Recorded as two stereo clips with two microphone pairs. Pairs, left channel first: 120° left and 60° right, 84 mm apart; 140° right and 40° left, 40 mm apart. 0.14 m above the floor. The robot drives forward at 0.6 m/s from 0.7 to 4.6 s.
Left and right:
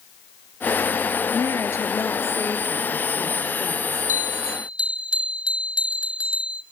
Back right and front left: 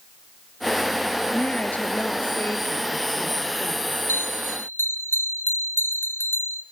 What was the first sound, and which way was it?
A woman speaking, 170° left.